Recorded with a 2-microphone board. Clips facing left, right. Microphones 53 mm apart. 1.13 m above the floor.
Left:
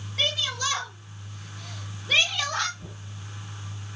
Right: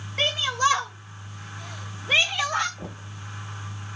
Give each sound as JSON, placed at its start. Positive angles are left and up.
{"t": 0.2, "sound": "a shout", "side_deg": -40, "distance_m": 4.5}
{"t": 2.8, "sound": "knocking", "side_deg": -80, "distance_m": 1.8}